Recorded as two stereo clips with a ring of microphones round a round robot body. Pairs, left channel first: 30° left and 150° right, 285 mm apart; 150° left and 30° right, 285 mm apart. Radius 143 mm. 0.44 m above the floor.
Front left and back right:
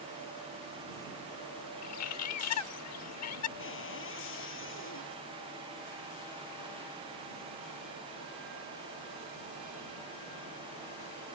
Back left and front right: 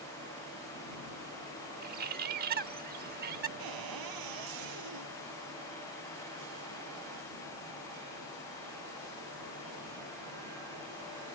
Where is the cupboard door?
20° right.